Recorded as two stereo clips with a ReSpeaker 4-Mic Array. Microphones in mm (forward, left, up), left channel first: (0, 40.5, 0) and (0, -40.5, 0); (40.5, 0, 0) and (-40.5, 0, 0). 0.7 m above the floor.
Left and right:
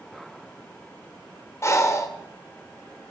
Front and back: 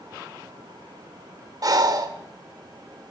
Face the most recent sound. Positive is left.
turn(degrees=145)